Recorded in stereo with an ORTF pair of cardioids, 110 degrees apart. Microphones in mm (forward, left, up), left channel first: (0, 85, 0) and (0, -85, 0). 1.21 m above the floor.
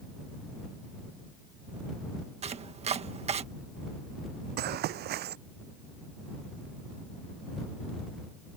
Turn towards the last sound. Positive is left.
turn(degrees=-70)